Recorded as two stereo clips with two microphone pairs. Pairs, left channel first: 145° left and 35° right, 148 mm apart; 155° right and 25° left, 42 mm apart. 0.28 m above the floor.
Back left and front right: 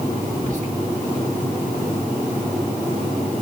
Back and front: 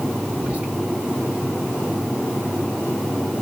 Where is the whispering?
30° right, 2.5 m.